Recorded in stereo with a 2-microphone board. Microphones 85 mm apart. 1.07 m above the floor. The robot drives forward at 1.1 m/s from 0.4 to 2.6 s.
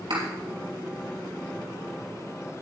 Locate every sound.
0.1 s a thud: 75° right (ahead or behind), 3.5 m